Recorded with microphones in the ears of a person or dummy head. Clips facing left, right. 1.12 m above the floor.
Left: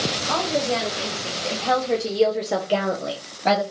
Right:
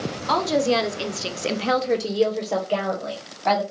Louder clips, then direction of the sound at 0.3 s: Right 4 dB; 55° right (ahead or behind).